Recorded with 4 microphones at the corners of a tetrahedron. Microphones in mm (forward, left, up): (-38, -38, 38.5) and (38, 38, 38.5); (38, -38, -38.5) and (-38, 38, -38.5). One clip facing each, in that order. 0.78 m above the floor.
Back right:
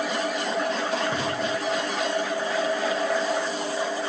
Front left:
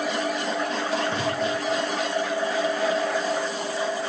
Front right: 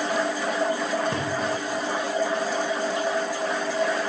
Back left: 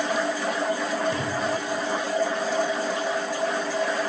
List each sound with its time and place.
1.1 s a thud: 50° right, 5.5 m